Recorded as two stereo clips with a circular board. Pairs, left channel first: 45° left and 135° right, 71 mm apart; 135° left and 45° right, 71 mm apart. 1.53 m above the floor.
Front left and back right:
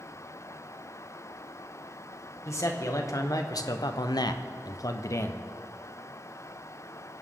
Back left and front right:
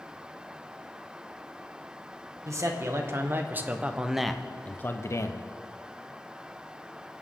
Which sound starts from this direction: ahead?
A man speaking, at 2.5 s.